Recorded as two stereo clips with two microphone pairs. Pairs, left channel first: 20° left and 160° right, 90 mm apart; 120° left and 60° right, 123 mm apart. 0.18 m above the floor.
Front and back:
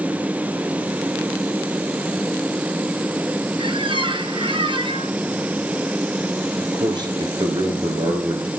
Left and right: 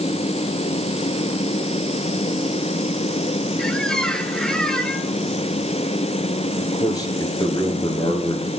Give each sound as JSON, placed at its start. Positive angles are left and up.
{"t": 3.6, "sound": "a squeak", "azimuth_deg": -155, "distance_m": 1.1}
{"t": 6.6, "sound": "a man speaking", "azimuth_deg": 175, "distance_m": 2.5}